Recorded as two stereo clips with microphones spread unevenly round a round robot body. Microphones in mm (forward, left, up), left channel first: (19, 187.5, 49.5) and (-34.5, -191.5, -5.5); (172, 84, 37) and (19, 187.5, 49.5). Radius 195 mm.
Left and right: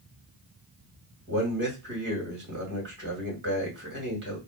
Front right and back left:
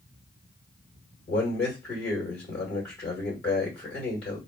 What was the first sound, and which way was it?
A man speaking, 45° right.